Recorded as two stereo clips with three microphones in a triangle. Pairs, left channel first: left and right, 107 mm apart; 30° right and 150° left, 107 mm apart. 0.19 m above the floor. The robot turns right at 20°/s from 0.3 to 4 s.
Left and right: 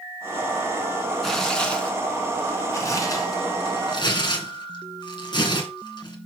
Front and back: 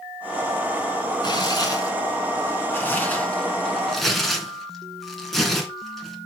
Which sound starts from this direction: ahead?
Tearing paper, at 1.2 s.